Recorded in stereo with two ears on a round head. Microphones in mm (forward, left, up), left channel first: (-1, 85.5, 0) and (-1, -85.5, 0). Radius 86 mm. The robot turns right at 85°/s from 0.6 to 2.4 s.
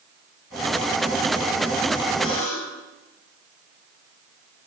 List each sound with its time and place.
2.2 s a buzzer: 25° left (ahead or behind), 5.5 m; by 2.9 s 40° left (ahead or behind), 5.5 m